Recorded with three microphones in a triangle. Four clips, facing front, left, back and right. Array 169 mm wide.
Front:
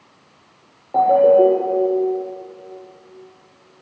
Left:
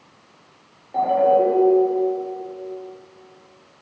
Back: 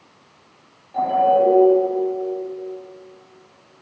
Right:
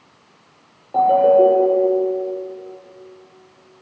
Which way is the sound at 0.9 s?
20° right.